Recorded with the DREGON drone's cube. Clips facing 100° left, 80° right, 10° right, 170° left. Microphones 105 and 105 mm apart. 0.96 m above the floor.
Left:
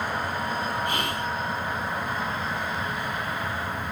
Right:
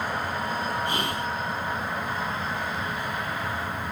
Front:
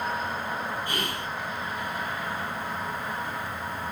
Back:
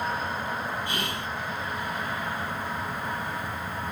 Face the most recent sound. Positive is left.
turn(degrees=-125)